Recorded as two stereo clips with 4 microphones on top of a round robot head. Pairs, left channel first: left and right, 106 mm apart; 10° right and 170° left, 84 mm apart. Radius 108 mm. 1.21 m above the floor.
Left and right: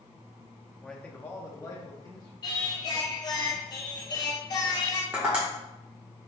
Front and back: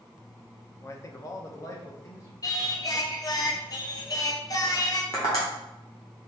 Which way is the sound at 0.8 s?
5° left.